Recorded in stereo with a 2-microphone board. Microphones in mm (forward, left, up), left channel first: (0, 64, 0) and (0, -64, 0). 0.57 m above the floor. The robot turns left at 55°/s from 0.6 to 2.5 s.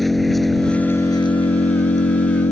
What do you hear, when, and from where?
0.0 s an engine running: straight behind; by 2.5 s 75° left